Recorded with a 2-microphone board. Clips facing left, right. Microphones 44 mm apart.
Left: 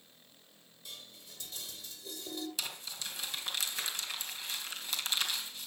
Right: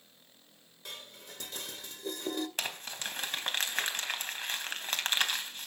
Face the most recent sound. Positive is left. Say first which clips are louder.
# right 4 dB
turn(degrees=-50)  # may be behind; listen again after turning